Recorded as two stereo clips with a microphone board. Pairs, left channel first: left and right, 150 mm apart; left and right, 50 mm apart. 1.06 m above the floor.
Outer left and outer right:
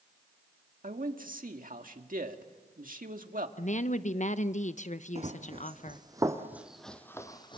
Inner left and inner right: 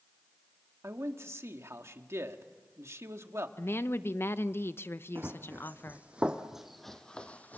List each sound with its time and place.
0.8 s a man speaking: 65° right (ahead or behind), 1.8 m
3.6 s a woman speaking: 55° left (ahead or behind), 0.8 m
5.2 s running footsteps: 45° right (ahead or behind), 3 m; by 7.6 s 35° left (ahead or behind), 2 m